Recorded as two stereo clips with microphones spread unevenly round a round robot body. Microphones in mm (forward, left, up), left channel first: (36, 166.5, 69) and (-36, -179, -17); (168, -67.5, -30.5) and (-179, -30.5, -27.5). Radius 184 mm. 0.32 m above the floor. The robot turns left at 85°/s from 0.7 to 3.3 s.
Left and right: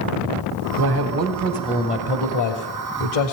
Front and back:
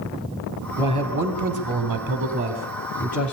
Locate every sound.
0.8 s a man speaking: 110° right, 2 m; by 3.4 s 35° left, 2 m